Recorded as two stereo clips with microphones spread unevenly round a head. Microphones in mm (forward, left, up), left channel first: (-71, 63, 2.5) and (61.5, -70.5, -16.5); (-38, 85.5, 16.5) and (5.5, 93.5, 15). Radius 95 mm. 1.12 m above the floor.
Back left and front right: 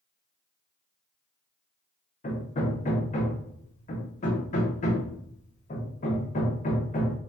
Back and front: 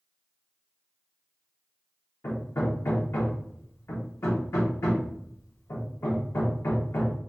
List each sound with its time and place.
2.2 s hammering: 175° right, 0.7 m